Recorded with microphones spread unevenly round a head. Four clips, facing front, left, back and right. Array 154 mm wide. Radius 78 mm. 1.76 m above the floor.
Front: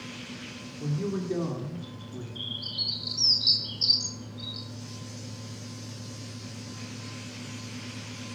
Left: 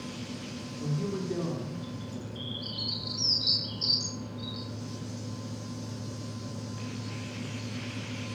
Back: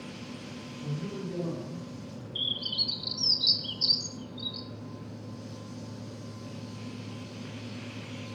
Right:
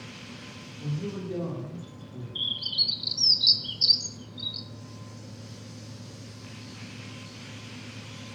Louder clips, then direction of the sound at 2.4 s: Left 2 dB, back 2 dB; 85° right.